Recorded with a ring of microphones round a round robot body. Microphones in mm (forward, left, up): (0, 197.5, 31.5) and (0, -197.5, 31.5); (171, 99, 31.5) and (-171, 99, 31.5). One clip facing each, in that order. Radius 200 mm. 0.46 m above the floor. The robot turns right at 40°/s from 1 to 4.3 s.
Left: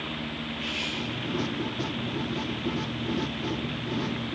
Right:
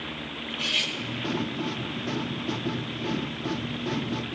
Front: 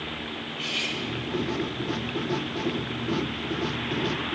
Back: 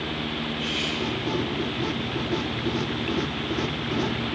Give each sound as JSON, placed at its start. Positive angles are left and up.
{"t": 0.5, "sound": "cutlery clinking", "azimuth_deg": -75, "distance_m": 1.4}